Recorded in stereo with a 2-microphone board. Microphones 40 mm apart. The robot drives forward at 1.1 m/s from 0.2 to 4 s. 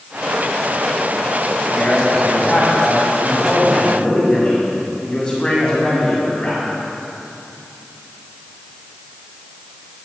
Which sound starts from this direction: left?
A man speaking, at 1.7 s.